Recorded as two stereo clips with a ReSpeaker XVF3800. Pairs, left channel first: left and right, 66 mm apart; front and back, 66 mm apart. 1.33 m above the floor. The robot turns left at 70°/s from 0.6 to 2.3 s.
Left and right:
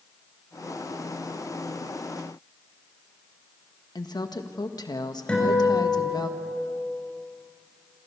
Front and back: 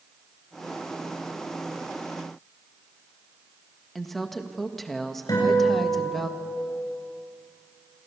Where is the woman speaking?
85° left, 1.7 m.